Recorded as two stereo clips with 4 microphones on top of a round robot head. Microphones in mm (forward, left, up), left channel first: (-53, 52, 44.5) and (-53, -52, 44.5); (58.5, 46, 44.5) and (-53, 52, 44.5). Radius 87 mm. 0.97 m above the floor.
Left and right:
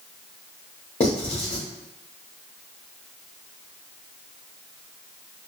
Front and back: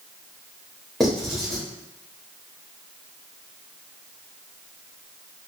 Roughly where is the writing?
Left.